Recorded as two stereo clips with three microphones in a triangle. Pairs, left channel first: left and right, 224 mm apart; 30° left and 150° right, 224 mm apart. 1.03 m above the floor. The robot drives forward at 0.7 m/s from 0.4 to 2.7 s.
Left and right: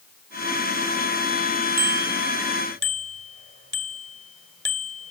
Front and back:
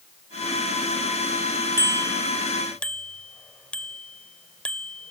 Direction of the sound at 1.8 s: 45° right.